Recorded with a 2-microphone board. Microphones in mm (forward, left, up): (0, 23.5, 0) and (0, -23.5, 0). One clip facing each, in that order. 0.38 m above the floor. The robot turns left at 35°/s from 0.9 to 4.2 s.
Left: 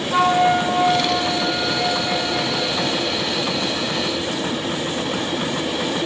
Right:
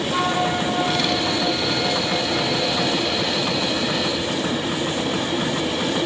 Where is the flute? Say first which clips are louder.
Left 7 dB; 155° left, 3 m; by 3.3 s 75° left, 3 m.